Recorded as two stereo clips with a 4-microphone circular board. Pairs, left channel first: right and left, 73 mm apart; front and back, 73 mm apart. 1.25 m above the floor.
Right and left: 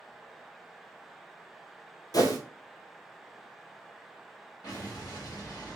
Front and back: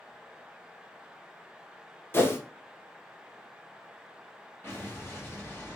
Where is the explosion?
60° right, 1.1 m.